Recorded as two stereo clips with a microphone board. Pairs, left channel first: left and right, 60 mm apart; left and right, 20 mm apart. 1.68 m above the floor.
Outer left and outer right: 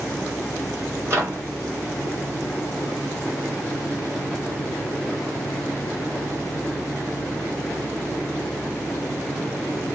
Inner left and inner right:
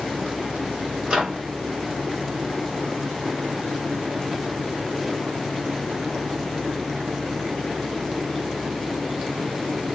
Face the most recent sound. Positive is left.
turn(degrees=-40)  # may be behind; listen again after turning